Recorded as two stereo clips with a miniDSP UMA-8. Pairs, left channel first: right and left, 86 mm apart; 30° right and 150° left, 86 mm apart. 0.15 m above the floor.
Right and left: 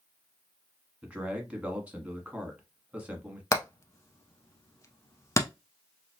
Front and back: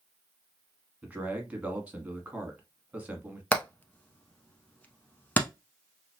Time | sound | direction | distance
1.0 | a man speaking | 125° left | 1.1 m
3.5 | hammering | 85° right | 0.6 m